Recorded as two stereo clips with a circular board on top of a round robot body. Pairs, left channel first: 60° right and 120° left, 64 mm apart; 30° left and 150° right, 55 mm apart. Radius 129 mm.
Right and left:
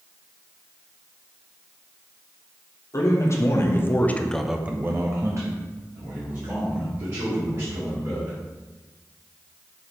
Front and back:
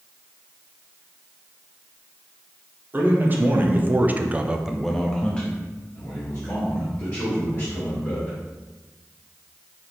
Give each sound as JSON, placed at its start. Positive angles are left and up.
{"t": 2.9, "sound": "a man speaking", "azimuth_deg": -95, "distance_m": 1.3}